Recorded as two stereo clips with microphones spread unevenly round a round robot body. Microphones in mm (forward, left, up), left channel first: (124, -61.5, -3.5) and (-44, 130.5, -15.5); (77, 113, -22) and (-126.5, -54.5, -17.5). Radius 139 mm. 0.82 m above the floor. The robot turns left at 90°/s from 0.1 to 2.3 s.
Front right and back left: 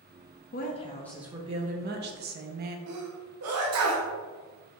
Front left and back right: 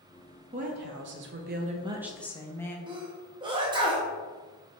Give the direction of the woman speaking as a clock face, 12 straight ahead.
3 o'clock.